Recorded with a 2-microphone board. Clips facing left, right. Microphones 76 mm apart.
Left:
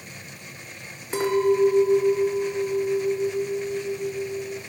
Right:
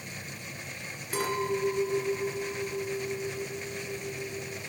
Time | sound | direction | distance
1.1 | a clink | 25° left (ahead or behind) | 1.2 m